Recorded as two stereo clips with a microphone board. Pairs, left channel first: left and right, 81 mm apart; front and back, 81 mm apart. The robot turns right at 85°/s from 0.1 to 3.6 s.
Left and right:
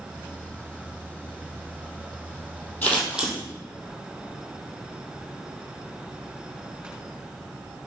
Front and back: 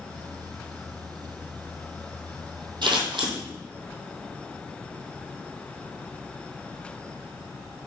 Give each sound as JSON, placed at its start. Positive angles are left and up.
{"t": 2.8, "sound": "scissors", "azimuth_deg": 160, "distance_m": 2.5}